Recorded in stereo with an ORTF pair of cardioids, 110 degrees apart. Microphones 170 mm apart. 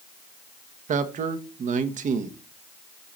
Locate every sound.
0.9 s a man speaking: 50° right, 1.4 m